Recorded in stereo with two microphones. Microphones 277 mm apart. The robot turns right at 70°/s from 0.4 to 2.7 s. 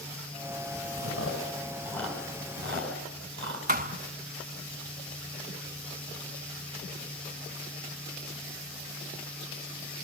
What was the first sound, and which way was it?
Chewing, 65° left (ahead or behind).